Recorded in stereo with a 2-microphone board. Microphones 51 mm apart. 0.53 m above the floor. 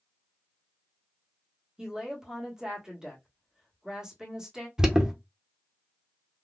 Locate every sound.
1.8 s a woman speaking: 10° right (ahead or behind), 1.3 m
4.8 s an alarm: 15° right (ahead or behind), 0.9 m